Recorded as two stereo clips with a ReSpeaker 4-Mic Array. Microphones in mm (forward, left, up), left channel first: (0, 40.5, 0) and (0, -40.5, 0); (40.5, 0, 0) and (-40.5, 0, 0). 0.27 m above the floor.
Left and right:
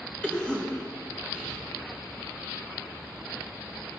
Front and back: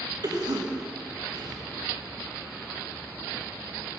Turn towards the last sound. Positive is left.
turn(degrees=165)